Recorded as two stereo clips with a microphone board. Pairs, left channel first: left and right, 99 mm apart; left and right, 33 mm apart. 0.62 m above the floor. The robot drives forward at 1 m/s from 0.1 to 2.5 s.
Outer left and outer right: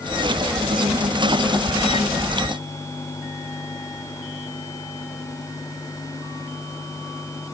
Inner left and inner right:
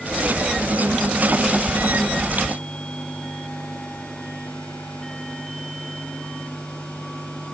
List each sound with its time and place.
Only background noise.